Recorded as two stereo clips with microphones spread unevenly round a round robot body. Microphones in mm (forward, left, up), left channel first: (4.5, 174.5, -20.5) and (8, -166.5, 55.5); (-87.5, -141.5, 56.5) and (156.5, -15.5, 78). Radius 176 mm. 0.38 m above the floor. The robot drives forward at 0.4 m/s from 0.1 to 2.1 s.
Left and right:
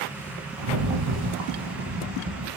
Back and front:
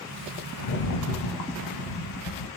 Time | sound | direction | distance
0.6 | a rattle | 130° right | 1.0 m